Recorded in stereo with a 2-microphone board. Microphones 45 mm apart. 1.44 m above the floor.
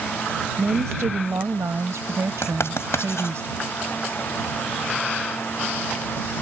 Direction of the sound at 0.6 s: 85° right.